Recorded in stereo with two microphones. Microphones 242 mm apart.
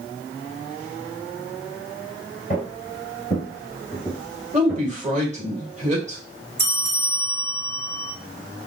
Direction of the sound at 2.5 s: 30° left (ahead or behind).